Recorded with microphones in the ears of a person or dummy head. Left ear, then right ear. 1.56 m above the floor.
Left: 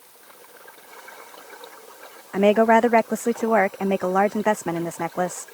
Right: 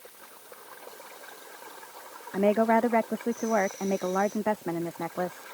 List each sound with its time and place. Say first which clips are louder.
2.3 s a woman speaking: left 7 dB; 80° left